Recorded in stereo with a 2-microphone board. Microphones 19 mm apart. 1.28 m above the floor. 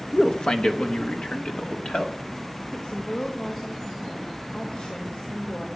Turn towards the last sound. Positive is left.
turn(degrees=70)  # may be behind; listen again after turning